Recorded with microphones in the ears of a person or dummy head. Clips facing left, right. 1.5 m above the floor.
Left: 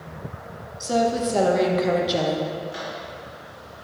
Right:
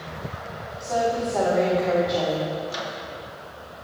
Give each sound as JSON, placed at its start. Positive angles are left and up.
{"t": 0.8, "sound": "a woman speaking", "side_deg": 40, "distance_m": 1.1}
{"t": 2.7, "sound": "a microwave", "side_deg": -70, "distance_m": 1.1}